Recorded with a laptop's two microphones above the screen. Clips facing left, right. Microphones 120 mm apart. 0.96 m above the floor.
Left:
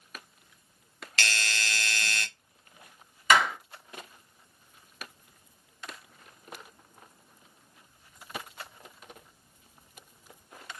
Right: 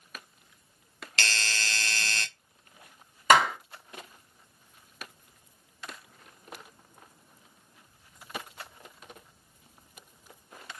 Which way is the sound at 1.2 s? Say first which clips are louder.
Left 1 dB; 30° right (ahead or behind).